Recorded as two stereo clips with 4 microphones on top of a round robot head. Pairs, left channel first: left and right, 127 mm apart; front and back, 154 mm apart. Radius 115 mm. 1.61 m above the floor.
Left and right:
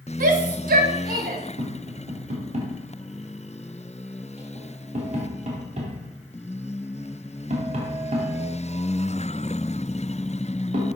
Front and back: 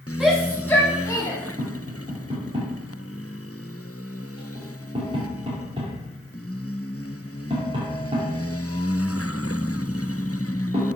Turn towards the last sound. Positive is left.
turn(degrees=-115)